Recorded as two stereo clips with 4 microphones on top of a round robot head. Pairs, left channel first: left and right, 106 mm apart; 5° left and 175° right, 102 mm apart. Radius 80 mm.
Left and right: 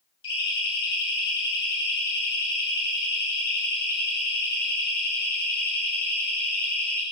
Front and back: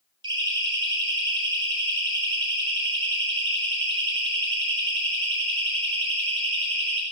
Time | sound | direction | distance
0.2 | a siren | 145° left | 10 m